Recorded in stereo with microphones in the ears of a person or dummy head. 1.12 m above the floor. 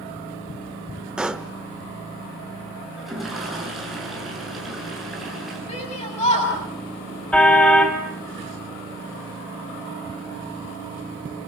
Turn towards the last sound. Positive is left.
turn(degrees=5)  # may be behind; listen again after turning